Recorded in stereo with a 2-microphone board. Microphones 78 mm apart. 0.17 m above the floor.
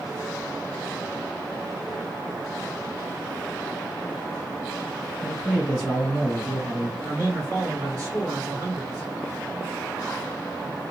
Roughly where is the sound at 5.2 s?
Centre.